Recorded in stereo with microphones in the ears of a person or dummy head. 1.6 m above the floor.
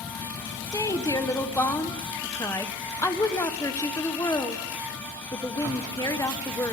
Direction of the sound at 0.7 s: 15° left (ahead or behind).